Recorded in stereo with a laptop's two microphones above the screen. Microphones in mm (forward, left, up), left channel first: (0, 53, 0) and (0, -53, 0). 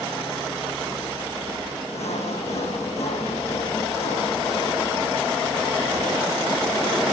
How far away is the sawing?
About 8.5 m.